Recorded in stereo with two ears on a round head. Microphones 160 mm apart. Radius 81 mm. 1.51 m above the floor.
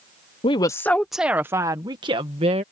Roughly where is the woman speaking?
Left.